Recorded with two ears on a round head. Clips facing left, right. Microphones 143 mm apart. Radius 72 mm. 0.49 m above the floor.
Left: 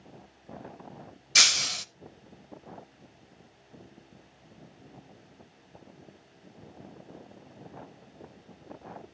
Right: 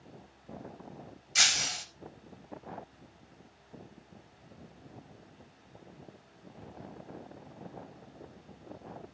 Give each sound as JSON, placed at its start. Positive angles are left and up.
{"t": 1.4, "sound": "breaking glass", "side_deg": 65, "distance_m": 0.5}